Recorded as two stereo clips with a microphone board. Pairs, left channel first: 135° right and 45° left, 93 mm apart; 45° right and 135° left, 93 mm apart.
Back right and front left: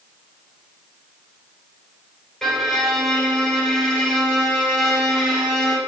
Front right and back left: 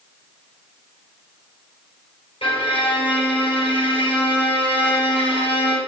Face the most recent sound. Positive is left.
turn(degrees=-50)